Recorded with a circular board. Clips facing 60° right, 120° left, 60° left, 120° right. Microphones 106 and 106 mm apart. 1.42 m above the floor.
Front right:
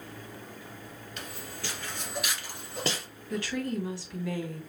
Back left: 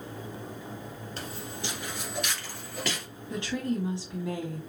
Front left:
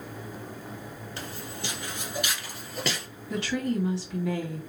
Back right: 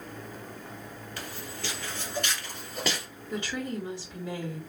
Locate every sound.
1.2 s footsteps: 100° left, 1.7 m; by 3.1 s 40° right, 1.7 m
3.3 s a woman speaking: 55° left, 2 m